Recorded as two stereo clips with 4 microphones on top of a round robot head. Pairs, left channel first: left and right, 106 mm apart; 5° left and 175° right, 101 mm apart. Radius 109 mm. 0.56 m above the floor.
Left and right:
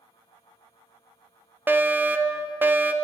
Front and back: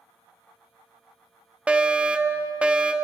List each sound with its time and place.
1.7 s a fire alarm: 115° right, 1.6 m